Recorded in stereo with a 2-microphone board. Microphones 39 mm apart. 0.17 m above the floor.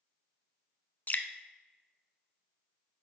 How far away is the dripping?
About 0.6 m.